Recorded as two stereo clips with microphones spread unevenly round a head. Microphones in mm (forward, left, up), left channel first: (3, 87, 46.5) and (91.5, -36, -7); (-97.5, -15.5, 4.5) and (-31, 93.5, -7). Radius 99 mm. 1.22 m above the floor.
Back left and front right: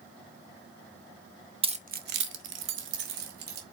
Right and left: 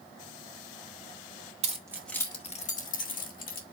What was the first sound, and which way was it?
Keys jangling, 10° left.